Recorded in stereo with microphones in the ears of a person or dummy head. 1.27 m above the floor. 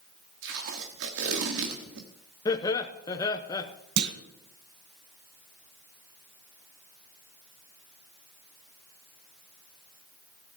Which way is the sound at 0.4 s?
70° right (ahead or behind).